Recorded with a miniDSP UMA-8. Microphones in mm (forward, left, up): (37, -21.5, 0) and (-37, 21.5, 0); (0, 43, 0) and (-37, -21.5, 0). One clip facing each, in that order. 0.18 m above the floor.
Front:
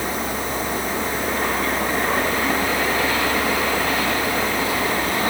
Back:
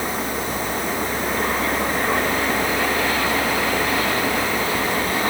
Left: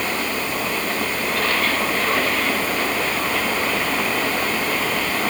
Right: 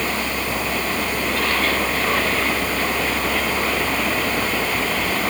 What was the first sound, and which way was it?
Only background noise.